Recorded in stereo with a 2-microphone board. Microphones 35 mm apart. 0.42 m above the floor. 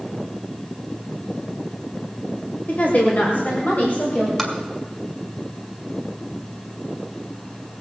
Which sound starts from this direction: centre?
Tapping, at 4.4 s.